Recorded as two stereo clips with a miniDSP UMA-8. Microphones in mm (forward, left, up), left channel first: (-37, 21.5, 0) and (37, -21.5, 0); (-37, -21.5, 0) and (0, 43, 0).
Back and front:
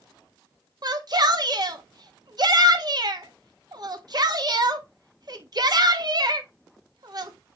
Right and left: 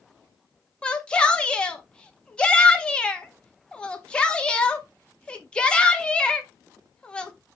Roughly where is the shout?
Ahead right.